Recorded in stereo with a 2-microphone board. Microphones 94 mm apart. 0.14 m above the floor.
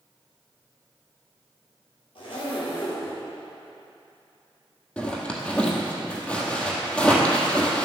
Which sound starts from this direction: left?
A zipper, at 2.1 s.